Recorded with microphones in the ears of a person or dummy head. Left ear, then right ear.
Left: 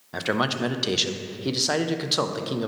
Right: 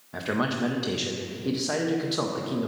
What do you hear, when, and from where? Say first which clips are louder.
0.1 s a man speaking: left 3 dB; 25° left (ahead or behind), 0.6 m